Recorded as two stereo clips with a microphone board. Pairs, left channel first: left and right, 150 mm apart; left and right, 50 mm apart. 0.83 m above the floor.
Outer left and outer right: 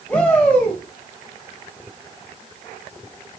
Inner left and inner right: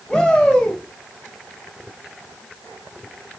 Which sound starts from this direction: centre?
A shout, at 0.1 s.